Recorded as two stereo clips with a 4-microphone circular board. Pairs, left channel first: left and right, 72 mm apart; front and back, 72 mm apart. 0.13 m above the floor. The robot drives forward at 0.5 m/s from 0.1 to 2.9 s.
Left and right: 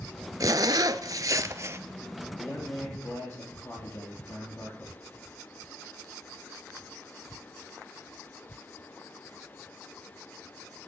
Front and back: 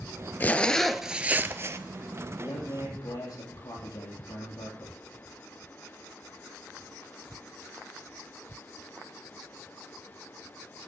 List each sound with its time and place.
0.4 s a zipper: 60° right, 0.5 m; by 1.8 s 135° right, 0.7 m
2.4 s a man speaking: 30° left, 4.5 m; by 5.0 s 35° left, 4 m